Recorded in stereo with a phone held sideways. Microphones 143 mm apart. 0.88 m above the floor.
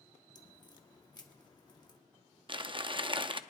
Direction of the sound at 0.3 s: 30° left (ahead or behind).